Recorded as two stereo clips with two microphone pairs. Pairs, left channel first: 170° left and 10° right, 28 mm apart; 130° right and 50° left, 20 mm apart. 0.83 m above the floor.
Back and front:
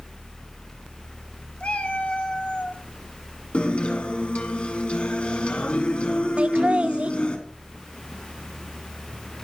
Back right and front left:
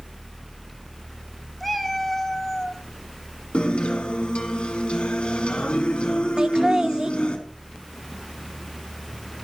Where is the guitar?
160° right, 2 m.